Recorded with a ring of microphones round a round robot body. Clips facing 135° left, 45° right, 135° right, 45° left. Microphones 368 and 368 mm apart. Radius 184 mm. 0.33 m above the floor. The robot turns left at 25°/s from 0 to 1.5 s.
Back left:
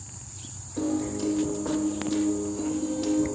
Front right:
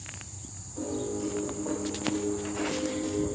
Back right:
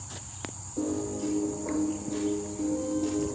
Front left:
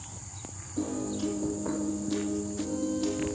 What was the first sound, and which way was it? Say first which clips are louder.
A piano: back left 5 dB, back right 1 dB; 110° left.